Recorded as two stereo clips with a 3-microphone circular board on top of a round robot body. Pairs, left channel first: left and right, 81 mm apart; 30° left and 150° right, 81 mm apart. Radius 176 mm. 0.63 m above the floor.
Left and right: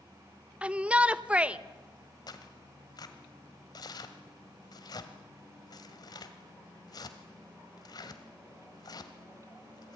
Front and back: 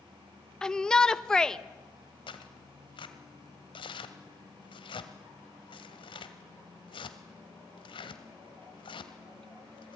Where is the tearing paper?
50° left, 1.7 m.